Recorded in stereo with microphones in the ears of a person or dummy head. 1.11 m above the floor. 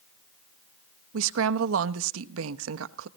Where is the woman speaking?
85° right, 0.8 m.